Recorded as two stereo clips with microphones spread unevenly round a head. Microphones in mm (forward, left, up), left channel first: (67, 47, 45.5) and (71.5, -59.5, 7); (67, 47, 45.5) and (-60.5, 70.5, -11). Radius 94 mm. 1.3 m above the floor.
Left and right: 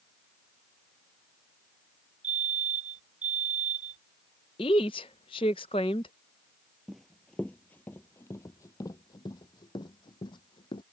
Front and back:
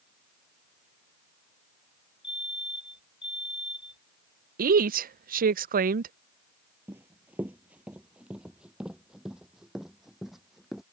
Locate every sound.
2.2 s a fire alarm: 105° right
4.6 s a woman speaking: 145° left
6.9 s running footsteps: 55° left; by 10.8 s 70° left